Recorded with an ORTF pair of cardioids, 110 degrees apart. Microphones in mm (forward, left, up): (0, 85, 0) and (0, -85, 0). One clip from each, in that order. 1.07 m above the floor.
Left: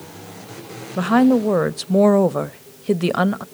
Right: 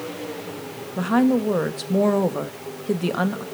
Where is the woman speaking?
30° left, 0.9 m.